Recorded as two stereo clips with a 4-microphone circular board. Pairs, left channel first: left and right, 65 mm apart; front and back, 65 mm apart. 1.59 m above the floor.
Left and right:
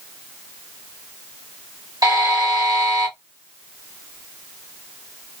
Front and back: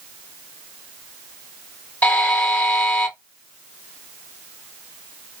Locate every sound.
2.0 s a buzzer: 65° right, 1.4 m